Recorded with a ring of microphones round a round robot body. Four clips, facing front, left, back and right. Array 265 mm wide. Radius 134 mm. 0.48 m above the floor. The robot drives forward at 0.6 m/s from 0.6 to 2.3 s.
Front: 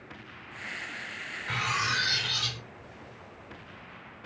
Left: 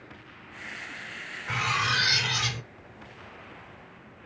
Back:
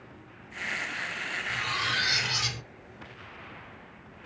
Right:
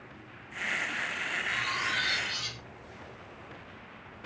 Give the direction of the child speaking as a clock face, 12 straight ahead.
I don't hear a child speaking.